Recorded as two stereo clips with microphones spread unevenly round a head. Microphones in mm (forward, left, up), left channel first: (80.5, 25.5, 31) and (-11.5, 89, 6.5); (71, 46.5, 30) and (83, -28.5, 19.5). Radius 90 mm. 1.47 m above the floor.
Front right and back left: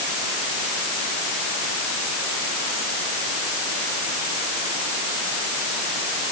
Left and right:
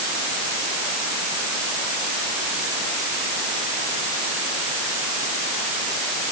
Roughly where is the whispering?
I don't hear whispering.